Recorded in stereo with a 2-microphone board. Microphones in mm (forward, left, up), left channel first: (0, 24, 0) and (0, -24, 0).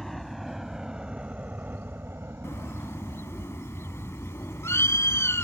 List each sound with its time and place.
0.0 s a helicopter: centre (ahead or behind); by 5.5 s 50° right (ahead or behind)
2.4 s a bird: 65° left (ahead or behind)